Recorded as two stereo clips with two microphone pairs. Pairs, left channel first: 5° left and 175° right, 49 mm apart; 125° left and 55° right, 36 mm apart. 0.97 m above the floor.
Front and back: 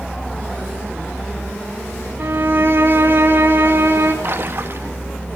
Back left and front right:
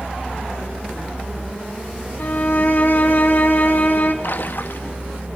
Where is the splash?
150° left, 1.2 m.